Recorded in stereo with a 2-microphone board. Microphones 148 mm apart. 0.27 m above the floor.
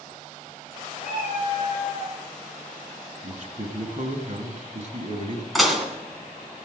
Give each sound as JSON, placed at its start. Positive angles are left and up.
{"t": 1.0, "sound": "a cat meowing", "side_deg": 40, "distance_m": 6.5}
{"t": 3.2, "sound": "a man speaking", "side_deg": -55, "distance_m": 1.6}
{"t": 5.5, "sound": "dishes clattering", "side_deg": 0, "distance_m": 1.8}